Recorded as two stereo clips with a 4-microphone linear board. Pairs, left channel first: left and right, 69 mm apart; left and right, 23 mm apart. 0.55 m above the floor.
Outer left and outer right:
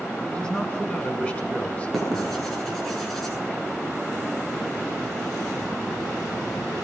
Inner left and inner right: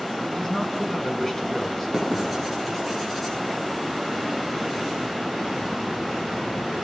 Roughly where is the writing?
Centre.